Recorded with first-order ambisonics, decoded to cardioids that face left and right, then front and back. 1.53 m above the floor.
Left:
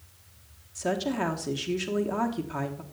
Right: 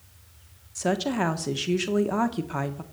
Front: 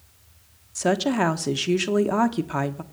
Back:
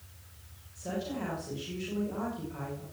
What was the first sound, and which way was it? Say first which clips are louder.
A woman speaking: right 3 dB, front 14 dB; 15° right.